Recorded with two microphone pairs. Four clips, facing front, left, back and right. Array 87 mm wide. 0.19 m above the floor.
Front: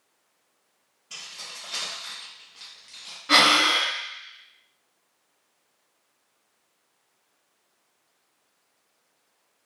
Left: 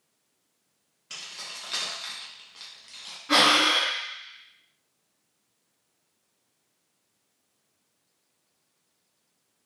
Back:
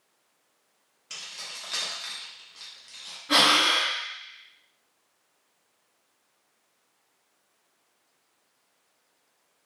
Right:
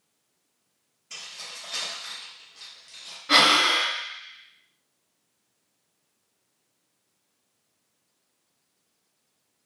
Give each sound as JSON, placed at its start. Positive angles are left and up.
{"t": 1.1, "sound": "keys jangling", "azimuth_deg": 135, "distance_m": 1.5}
{"t": 3.3, "sound": "breathing", "azimuth_deg": -20, "distance_m": 0.9}